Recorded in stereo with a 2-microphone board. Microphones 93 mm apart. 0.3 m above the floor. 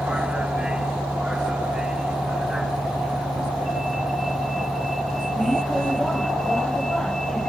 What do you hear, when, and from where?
0.0 s a vehicle: 10° right (ahead or behind); by 7.5 s 5° left (ahead or behind)